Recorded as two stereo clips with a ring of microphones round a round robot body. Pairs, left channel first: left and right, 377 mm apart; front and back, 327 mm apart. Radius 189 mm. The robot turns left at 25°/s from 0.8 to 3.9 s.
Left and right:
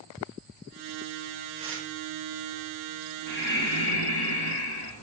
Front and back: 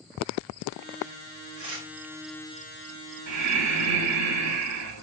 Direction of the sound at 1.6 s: 130° right.